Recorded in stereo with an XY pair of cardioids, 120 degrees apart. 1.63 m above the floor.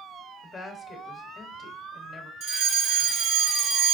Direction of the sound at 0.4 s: 30° left.